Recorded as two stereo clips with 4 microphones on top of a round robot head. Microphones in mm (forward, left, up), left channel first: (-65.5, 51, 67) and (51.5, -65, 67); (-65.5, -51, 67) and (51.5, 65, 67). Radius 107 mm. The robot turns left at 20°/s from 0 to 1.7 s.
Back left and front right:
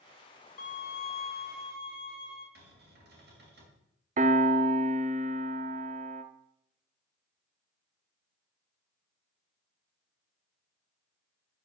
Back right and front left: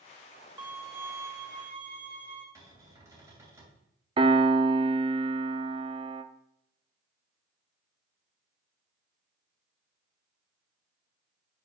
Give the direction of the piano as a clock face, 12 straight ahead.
12 o'clock.